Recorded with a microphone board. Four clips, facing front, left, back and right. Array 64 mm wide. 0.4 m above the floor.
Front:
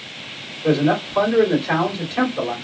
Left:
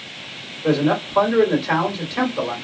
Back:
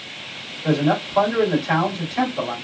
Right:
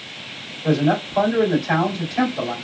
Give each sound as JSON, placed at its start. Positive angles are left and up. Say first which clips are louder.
{"t": 0.6, "sound": "a man speaking", "louder": "even, front 2 dB", "azimuth_deg": 60, "distance_m": 2.0}